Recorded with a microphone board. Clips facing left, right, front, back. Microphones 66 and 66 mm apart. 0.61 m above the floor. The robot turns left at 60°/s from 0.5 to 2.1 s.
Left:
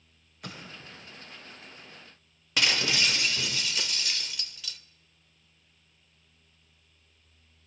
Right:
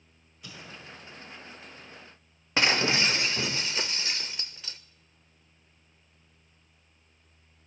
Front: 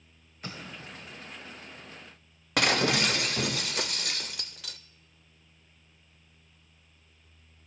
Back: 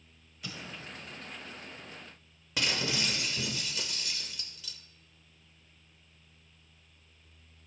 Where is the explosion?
50° left, 1.0 m; by 1.1 s 15° left, 1.0 m.